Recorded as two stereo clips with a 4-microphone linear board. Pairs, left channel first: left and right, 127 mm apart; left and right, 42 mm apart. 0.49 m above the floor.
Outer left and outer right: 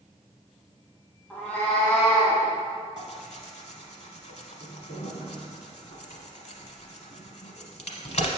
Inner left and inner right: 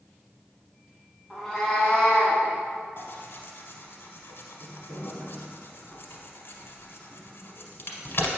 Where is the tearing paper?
65° left (ahead or behind), 0.9 m.